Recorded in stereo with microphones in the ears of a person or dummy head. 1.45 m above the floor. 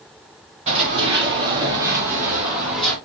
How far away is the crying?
I don't hear crying.